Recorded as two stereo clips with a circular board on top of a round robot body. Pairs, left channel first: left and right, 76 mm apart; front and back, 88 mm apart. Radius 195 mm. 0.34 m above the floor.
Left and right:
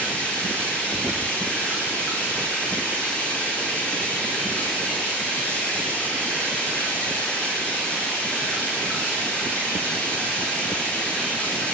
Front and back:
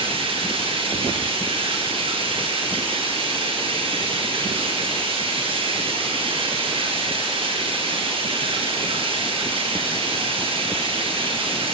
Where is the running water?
165° left, 9 m.